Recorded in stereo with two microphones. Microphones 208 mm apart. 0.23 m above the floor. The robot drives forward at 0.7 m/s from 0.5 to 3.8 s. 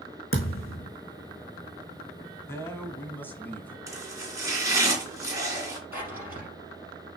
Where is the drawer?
10° right (ahead or behind), 4 m.